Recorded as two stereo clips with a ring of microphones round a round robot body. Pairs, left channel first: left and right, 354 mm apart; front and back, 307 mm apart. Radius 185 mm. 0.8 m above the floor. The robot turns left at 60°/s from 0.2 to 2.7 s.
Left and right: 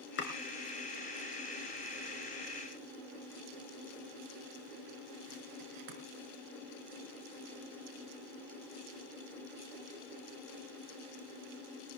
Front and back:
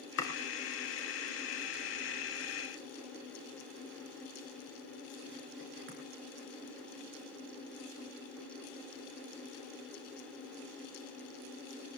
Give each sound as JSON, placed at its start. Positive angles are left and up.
{"t": 0.2, "sound": "chopping", "azimuth_deg": 30, "distance_m": 3.5}